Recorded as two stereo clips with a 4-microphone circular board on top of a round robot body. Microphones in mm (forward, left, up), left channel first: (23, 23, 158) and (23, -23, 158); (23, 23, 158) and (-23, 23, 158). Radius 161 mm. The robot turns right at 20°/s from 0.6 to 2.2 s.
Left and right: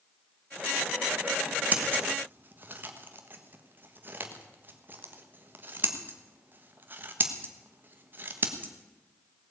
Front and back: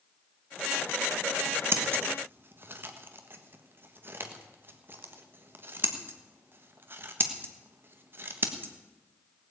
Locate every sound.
1.7 s scissors: 145° right, 1.5 m; by 8.7 s 140° right, 1.5 m